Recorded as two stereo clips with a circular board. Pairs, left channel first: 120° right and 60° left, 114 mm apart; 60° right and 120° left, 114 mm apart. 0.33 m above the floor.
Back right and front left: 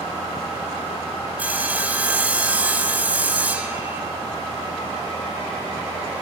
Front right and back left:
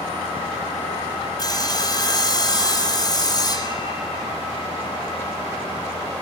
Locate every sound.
1.4 s sawing: 15° right, 2 m